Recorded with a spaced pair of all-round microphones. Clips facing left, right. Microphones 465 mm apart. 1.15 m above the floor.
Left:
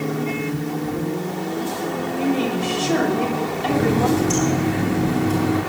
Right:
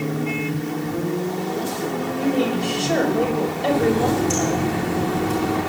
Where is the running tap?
40° left (ahead or behind), 10 m.